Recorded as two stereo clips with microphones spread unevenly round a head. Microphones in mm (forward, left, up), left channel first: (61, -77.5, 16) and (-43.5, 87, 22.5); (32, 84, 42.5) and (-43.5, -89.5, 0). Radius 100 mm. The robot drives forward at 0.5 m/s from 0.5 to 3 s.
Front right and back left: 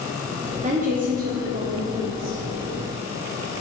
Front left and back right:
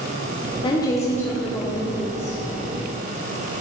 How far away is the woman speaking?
About 0.6 m.